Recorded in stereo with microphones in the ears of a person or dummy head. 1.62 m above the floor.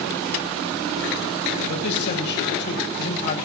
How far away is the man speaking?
About 7 m.